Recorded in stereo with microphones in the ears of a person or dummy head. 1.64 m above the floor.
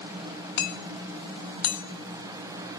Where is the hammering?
60° left (ahead or behind), 1.5 m.